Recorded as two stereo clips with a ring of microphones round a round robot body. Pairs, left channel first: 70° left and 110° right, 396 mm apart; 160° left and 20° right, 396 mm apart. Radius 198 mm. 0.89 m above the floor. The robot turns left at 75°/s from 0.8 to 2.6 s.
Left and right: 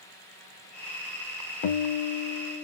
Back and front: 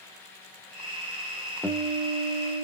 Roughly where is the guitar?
Ahead left.